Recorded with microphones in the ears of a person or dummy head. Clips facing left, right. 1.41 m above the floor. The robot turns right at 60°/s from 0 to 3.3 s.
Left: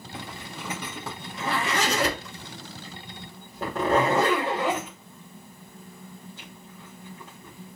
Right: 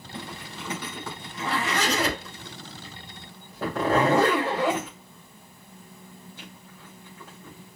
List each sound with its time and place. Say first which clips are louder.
0.1 s a zipper: right 1 dB; 25° right (ahead or behind), 3 m; by 7.8 s 15° left (ahead or behind), 3 m